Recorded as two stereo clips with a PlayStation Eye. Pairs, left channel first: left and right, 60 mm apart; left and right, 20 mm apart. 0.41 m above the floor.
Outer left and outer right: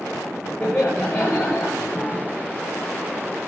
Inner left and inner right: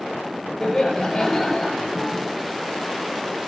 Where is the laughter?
35° left (ahead or behind), 10 m.